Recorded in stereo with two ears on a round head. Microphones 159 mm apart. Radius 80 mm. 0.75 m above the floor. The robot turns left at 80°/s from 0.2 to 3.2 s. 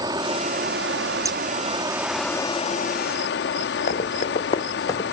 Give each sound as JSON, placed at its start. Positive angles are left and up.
{"t": 0.0, "sound": "running water", "azimuth_deg": -25, "distance_m": 0.8}
{"t": 1.2, "sound": "scissors", "side_deg": -20, "distance_m": 1.1}
{"t": 3.9, "sound": "running footsteps", "side_deg": 40, "distance_m": 2.5}